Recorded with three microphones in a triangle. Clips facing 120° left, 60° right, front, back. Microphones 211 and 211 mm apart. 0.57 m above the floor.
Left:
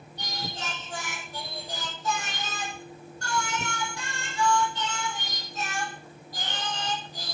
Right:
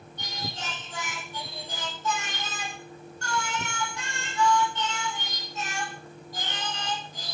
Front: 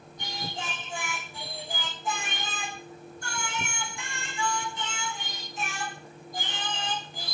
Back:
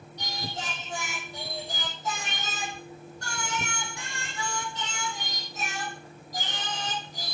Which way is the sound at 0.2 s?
170° left.